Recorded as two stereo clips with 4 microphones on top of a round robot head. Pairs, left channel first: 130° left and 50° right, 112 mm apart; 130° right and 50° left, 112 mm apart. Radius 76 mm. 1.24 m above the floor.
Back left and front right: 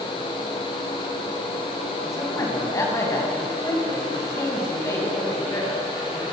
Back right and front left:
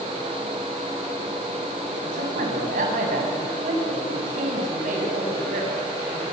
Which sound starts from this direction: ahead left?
A man speaking, at 2.0 s.